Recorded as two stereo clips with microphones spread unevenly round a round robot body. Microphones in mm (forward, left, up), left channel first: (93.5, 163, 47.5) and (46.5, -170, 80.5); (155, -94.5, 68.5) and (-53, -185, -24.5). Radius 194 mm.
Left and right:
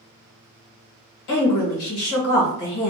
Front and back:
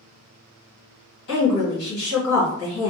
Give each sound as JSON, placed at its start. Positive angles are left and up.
{"t": 1.3, "sound": "a woman speaking", "azimuth_deg": 75, "distance_m": 1.4}